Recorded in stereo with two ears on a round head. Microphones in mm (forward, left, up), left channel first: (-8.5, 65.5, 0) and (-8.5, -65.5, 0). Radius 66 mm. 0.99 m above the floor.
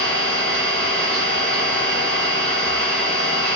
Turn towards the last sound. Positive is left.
turn(degrees=-70)  # may be behind; listen again after turning